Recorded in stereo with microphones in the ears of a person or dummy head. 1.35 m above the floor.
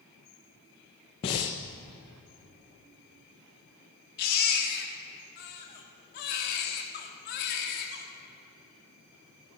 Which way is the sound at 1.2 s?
25° left (ahead or behind).